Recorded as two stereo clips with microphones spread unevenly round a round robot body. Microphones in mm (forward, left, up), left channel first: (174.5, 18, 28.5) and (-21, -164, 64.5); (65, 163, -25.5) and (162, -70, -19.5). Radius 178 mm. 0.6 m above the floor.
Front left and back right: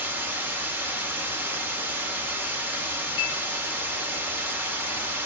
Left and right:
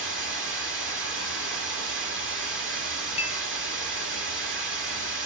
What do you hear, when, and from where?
0.0 s running water: 50° right, 0.9 m
3.2 s a clink: 50° left, 0.6 m